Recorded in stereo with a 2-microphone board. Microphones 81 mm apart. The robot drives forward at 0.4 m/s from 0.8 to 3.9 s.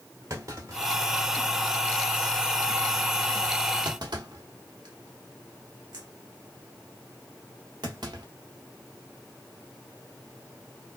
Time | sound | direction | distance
0.3 | a clunk | 40° right (ahead or behind) | 1.4 m